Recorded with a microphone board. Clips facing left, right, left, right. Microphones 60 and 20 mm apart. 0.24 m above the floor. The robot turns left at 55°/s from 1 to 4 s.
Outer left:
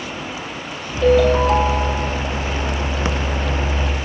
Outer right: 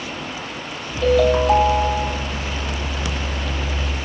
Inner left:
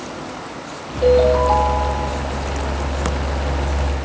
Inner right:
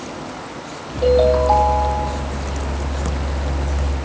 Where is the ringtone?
10° left, 4 m; by 2.3 s 60° right, 4 m.